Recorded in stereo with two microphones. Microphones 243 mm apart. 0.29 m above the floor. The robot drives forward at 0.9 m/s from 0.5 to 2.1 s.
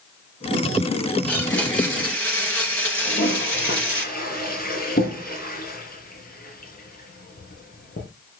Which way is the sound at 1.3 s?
5° left (ahead or behind).